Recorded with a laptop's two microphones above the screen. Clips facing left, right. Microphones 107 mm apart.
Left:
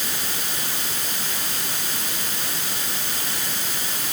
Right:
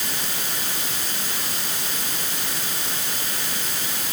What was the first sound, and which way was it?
Only background noise.